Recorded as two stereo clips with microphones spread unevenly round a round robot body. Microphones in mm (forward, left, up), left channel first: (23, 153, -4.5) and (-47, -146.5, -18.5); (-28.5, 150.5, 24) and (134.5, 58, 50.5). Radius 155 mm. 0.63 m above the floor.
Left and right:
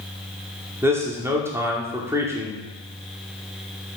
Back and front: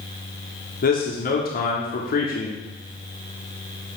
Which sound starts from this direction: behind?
A man speaking, at 0.8 s.